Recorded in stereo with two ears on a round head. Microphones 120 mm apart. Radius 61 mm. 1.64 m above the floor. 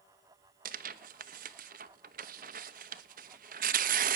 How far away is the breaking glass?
No breaking glass in this recording.